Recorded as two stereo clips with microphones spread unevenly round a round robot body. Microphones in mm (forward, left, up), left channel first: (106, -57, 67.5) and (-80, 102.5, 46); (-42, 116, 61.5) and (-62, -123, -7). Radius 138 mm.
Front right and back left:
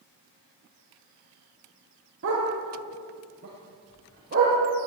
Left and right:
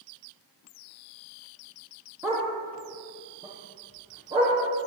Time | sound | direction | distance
2.2 | a dog barking | 175° right | 5.5 m